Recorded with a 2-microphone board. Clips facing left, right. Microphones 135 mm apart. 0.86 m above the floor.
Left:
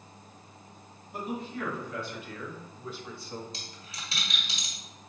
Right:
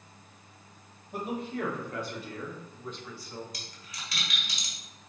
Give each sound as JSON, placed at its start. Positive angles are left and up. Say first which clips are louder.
{"t": 1.1, "sound": "a man speaking", "louder": "right 2 dB", "side_deg": -60, "distance_m": 1.7}
{"t": 3.5, "sound": "a dropped coin", "louder": "left 1 dB", "side_deg": 30, "distance_m": 1.4}